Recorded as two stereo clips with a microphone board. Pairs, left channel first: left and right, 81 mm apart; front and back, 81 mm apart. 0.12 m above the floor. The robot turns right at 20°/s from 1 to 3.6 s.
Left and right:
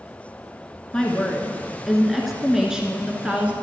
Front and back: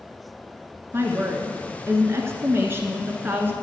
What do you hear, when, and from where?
0.9 s a woman speaking: 165° left, 1.4 m; by 3.5 s 145° right, 1.4 m